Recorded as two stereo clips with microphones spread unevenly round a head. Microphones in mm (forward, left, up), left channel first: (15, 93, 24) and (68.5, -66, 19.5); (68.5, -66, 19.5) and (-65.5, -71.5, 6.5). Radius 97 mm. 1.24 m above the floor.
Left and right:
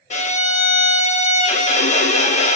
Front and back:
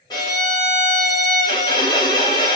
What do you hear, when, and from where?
0.1 s a violin: 65° left, 0.5 m